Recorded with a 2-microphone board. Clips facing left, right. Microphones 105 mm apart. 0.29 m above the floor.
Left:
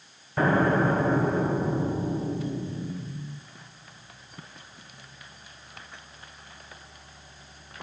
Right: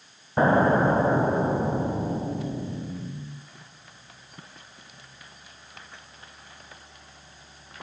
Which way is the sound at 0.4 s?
30° right (ahead or behind).